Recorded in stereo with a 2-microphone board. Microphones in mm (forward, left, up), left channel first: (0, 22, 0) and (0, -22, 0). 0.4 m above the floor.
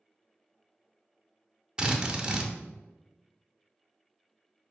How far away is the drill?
About 0.6 m.